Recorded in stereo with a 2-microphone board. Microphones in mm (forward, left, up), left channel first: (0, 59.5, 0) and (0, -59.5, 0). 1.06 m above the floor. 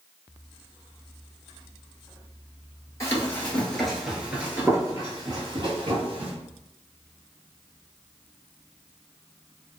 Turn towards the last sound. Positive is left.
turn(degrees=-50)  # may be behind; listen again after turning